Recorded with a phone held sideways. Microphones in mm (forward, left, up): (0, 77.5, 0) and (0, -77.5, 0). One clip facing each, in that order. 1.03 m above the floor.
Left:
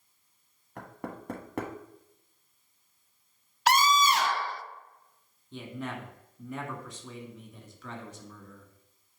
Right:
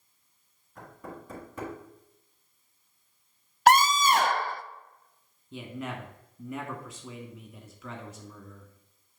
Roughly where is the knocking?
Left.